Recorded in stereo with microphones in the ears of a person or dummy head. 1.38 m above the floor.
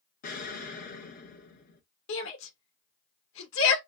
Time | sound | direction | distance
0.2 | an explosion | 40° left (ahead or behind) | 0.7 m
2.1 | a shout | 75° left (ahead or behind) | 1.1 m